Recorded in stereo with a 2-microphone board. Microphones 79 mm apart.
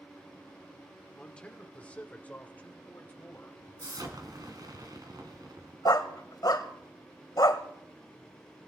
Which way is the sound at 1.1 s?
10° left (ahead or behind).